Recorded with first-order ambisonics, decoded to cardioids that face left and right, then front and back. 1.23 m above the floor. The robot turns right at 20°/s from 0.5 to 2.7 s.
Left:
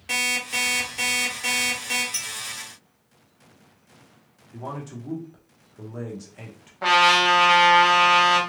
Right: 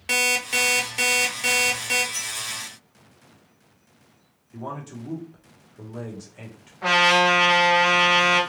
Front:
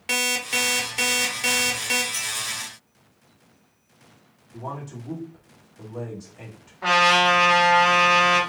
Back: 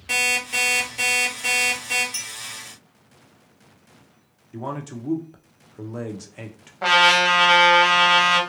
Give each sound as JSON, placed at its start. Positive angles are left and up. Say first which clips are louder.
{"t": 0.1, "sound": "an alarm clock", "louder": "right 3 dB, back 2 dB", "azimuth_deg": -50, "distance_m": 0.7}
{"t": 2.1, "sound": "a clink", "louder": "even, front 3 dB", "azimuth_deg": 125, "distance_m": 1.5}
{"t": 4.5, "sound": "a man speaking", "louder": "even, back 3 dB", "azimuth_deg": 180, "distance_m": 0.7}
{"t": 6.8, "sound": "a trumpet", "louder": "left 1 dB, back 2 dB", "azimuth_deg": 155, "distance_m": 1.1}